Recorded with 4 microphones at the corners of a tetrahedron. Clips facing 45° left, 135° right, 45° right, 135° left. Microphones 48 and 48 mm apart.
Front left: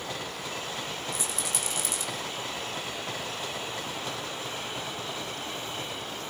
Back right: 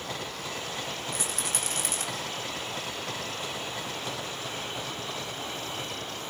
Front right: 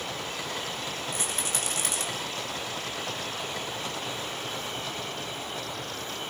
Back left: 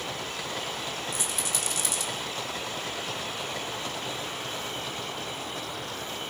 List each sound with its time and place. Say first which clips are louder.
1.1 s a rattle: even, even; 90° right, 4 m